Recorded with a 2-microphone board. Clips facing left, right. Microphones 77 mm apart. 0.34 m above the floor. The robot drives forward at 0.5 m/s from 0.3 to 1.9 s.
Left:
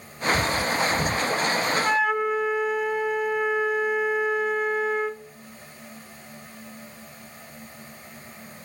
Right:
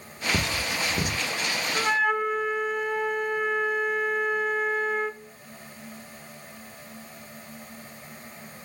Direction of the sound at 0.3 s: 65° right (ahead or behind).